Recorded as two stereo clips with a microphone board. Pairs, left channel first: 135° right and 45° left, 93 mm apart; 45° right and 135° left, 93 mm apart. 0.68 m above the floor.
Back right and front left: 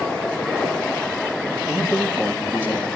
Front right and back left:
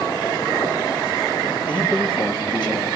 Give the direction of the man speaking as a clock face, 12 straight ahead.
1 o'clock.